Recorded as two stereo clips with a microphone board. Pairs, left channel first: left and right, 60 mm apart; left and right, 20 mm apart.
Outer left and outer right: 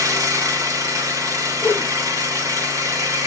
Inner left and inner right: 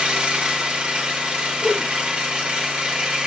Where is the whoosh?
25° left (ahead or behind), 2 m.